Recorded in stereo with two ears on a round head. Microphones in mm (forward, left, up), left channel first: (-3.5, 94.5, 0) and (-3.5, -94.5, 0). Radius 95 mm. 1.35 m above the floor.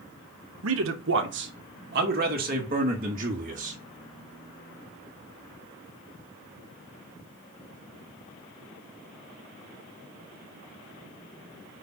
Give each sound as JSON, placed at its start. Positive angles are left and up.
{"t": 0.6, "sound": "a man speaking", "side_deg": -75, "distance_m": 1.1}